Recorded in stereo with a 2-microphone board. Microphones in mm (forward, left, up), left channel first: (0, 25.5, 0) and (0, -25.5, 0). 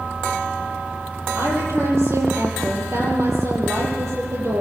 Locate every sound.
1.4 s a woman speaking: 65° right (ahead or behind), 9 m